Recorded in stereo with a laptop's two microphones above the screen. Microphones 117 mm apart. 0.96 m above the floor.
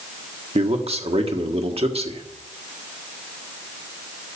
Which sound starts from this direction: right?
A man speaking, at 0.6 s.